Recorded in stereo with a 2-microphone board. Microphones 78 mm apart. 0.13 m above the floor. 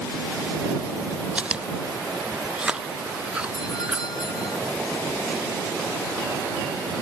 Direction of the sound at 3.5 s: 65° left (ahead or behind).